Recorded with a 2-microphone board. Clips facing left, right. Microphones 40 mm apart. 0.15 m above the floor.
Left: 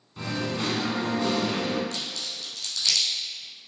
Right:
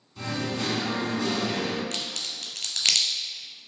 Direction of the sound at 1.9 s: 60° right (ahead or behind).